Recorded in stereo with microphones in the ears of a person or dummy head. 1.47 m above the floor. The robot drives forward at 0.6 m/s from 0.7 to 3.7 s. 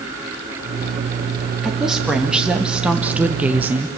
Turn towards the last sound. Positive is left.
turn(degrees=-10)  # may be behind; listen again after turning